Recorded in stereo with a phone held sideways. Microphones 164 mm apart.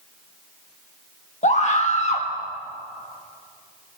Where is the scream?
45° left (ahead or behind), 1.5 m.